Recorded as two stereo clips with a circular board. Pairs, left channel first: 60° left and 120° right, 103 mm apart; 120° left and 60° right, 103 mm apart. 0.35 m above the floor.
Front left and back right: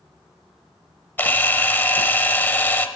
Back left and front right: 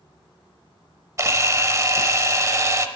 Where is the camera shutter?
5° right, 0.6 m.